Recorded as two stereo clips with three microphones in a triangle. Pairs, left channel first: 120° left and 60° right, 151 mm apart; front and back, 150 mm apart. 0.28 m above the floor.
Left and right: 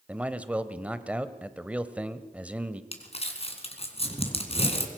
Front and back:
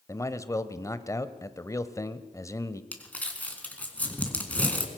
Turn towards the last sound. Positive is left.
turn(degrees=80)